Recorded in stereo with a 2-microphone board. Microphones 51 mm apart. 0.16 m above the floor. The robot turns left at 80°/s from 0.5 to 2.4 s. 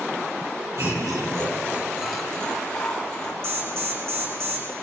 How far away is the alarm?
About 7 m.